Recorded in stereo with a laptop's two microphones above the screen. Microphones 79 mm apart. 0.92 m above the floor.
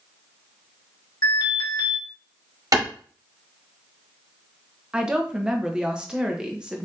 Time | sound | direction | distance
1.2 | an alarm | 55° left (ahead or behind) | 1.7 m
2.7 | a clap | 50° right (ahead or behind) | 1.4 m
4.9 | a woman speaking | 10° right (ahead or behind) | 0.7 m